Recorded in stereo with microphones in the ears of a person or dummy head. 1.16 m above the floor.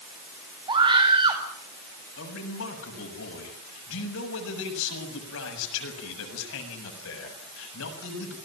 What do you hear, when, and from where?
0.7 s a scream: 25° right (ahead or behind), 7 m
2.2 s a man speaking: 70° left (ahead or behind), 7.5 m